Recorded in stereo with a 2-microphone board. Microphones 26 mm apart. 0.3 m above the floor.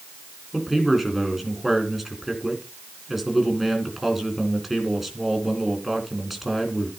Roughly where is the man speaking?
Centre.